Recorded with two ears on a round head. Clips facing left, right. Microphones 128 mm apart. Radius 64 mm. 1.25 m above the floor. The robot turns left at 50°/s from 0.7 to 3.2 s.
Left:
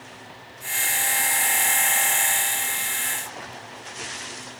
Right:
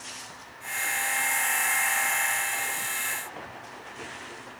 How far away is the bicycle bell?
No bicycle bell in this recording.